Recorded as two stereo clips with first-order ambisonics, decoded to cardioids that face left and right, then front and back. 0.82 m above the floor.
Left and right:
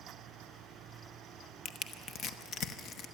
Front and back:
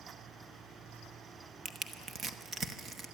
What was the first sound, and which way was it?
Crushing, 120° left.